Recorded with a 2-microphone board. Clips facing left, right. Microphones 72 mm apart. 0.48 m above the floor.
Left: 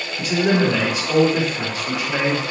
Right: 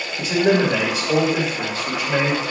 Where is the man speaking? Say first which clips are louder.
Right 1 dB; 30° right (ahead or behind), 1.8 m.